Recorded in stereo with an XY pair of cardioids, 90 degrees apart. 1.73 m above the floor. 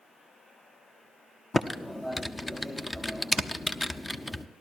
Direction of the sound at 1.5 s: 20° left.